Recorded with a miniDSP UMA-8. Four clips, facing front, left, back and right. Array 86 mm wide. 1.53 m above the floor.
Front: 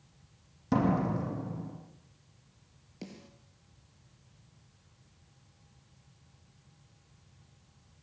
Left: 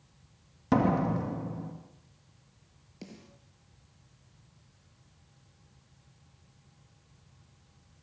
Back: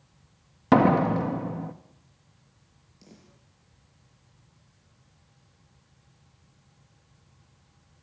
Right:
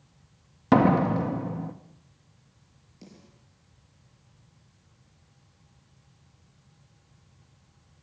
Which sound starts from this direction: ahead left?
A snare drum, at 3.0 s.